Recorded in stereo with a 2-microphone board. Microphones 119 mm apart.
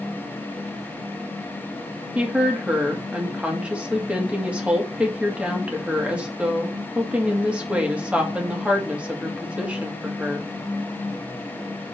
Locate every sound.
2.1 s a woman speaking: 10° right (ahead or behind), 1.8 m